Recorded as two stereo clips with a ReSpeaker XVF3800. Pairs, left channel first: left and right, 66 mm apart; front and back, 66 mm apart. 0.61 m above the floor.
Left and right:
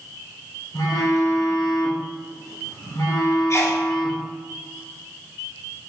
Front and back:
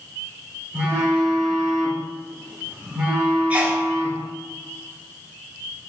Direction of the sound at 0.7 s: 110° left.